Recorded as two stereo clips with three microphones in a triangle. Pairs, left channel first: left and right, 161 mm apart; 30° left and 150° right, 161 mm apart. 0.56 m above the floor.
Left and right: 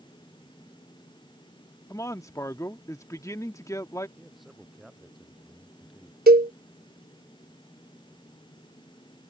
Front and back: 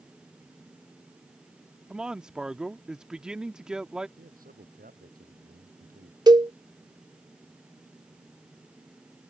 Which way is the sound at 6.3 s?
85° right.